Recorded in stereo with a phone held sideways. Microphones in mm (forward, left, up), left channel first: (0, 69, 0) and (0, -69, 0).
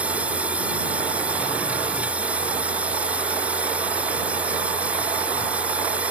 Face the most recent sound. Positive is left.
turn(degrees=-10)  # may be behind; listen again after turning